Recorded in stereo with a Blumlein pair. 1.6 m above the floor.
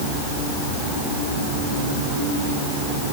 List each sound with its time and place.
Only background noise.